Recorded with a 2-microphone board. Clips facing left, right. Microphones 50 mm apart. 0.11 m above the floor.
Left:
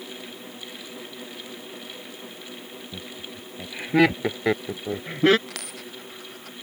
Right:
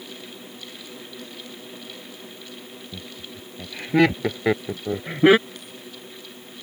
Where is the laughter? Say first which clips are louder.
Left 1 dB; 10° left (ahead or behind); by 5.4 s 15° right (ahead or behind).